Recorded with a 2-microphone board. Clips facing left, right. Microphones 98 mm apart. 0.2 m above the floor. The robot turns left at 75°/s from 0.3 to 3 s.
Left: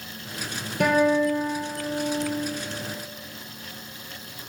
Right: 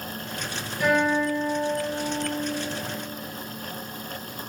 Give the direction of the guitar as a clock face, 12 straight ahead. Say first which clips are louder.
Left 2 dB; 9 o'clock.